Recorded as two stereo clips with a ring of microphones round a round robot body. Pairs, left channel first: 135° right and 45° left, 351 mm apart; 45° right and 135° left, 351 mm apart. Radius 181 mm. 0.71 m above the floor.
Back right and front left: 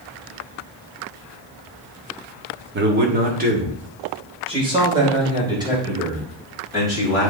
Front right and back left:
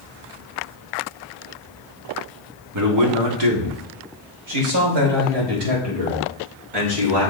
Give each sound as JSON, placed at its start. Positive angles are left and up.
{"t": 2.7, "sound": "a man speaking", "azimuth_deg": 100, "distance_m": 1.5}